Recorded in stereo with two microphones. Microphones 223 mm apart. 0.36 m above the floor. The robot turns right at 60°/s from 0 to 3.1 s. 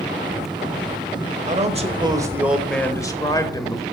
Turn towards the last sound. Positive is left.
turn(degrees=30)